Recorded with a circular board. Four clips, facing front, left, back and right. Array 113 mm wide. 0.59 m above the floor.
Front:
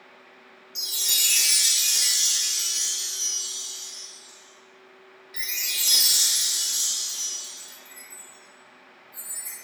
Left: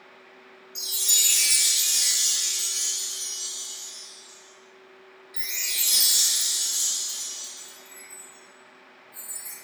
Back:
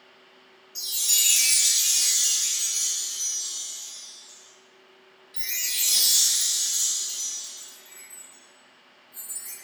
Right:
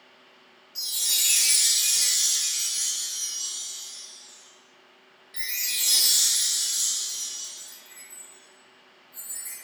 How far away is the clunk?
No clunk in this recording.